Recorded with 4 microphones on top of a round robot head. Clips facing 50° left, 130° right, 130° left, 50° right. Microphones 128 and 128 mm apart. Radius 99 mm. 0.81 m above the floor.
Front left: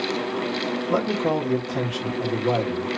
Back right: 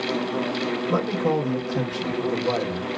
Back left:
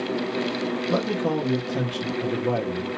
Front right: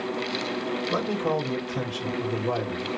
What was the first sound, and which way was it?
A man speaking, 120° left.